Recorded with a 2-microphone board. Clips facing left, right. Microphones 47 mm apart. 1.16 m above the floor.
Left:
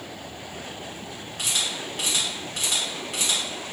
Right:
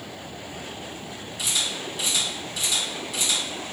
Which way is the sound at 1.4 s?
50° left (ahead or behind).